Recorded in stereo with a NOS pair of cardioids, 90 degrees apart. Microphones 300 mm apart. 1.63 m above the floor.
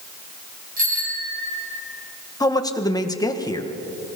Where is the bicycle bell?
30° right, 9 m.